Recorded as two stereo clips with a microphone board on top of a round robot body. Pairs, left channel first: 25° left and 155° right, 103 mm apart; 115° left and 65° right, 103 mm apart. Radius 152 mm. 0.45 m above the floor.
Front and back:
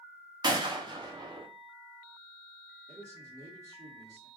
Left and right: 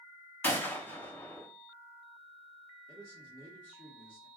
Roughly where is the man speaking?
Behind right.